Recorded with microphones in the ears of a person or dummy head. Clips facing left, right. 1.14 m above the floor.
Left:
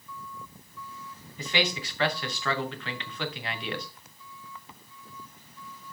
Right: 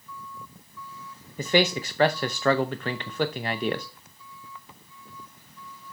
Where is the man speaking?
35° right (ahead or behind), 0.7 m.